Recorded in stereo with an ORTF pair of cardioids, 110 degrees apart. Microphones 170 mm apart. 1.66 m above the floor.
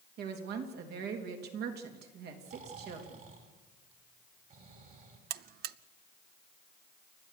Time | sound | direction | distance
0.2 | a woman speaking | 70° right | 3 m
2.5 | snoring | 50° right | 4.5 m
5.3 | a buzzer | 65° right | 0.6 m